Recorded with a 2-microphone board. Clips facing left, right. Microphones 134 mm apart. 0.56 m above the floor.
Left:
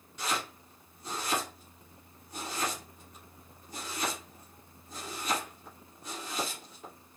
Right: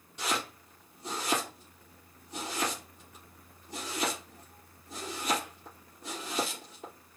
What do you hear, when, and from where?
0.2 s chopping: 25° right (ahead or behind), 3.5 m